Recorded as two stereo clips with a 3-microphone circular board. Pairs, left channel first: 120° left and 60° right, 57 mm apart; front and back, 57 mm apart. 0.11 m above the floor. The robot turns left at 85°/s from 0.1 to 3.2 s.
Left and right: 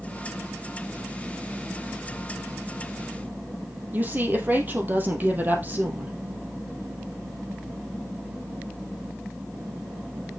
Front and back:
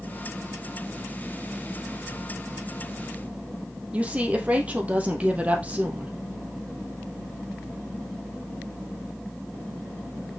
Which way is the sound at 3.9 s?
115° right.